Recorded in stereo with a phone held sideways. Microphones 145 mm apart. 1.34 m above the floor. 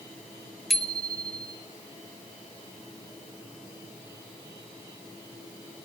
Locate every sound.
0.7 s a bicycle bell: centre (ahead or behind), 2 m